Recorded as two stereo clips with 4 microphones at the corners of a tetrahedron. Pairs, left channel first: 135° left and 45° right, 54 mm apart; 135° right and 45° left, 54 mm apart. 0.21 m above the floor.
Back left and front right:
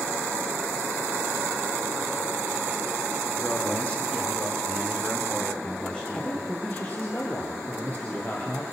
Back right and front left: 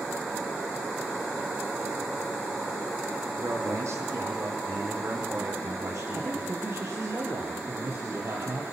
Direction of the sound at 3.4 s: 70° left.